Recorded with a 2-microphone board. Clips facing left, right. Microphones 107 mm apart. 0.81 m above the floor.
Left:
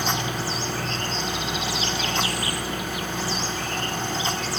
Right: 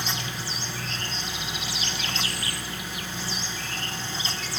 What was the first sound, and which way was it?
Only background noise.